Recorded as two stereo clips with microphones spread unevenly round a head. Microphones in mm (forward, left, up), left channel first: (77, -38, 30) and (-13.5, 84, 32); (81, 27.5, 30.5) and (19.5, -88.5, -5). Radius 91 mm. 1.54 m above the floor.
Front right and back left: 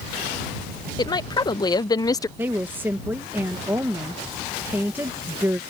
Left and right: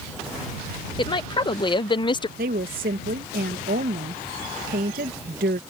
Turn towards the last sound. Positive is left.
turn(degrees=-155)